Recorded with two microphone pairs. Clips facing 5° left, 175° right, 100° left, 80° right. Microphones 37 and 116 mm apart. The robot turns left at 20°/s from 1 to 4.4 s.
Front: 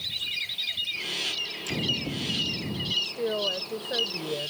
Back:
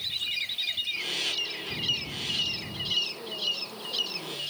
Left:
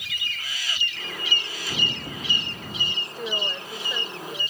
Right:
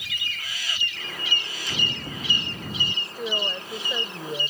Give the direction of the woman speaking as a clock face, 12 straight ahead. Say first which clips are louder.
Front 4 dB, right 1 dB; 12 o'clock.